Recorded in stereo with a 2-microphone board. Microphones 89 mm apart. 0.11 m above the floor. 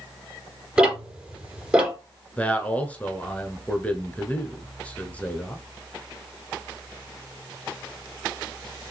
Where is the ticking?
15° right (ahead or behind), 3.5 m.